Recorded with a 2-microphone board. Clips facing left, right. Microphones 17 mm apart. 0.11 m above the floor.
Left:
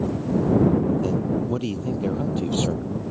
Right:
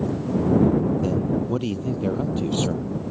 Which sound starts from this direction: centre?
A man speaking, at 1.0 s.